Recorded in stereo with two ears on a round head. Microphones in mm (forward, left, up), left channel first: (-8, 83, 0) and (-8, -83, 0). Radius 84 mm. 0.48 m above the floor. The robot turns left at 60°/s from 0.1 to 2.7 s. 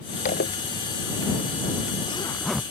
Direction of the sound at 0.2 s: 45° left (ahead or behind).